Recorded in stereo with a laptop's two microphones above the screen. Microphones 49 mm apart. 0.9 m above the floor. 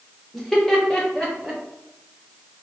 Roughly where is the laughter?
Centre.